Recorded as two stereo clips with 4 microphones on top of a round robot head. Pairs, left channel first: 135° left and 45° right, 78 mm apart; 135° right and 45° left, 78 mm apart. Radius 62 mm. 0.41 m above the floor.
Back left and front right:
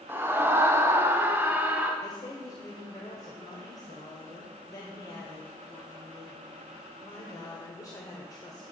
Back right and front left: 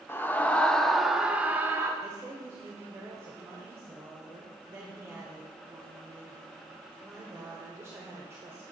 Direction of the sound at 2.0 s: 100° left.